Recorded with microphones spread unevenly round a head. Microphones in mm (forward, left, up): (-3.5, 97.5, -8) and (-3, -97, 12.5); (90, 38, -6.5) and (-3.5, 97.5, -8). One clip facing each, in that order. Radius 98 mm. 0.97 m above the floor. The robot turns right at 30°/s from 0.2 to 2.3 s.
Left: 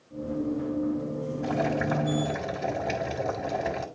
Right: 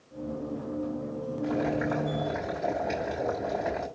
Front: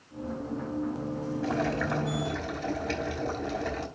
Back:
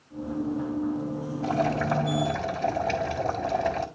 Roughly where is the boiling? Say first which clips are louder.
Even, back 5 dB; left.